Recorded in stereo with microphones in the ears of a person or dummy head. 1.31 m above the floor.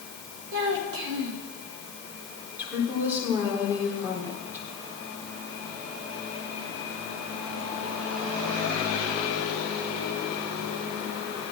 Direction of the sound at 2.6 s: 10° right (ahead or behind).